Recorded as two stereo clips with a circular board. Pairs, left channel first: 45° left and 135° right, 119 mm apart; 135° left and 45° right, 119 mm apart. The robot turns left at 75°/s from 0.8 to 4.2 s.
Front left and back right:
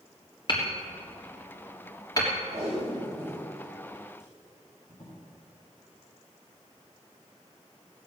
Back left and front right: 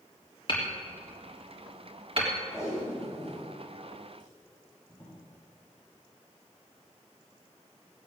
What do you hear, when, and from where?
0.5 s hammering: 90° left, 3.5 m; by 2.3 s 25° right, 3.5 m
2.5 s tape being pulled: 150° right, 6.5 m; by 5.2 s 80° left, 6.5 m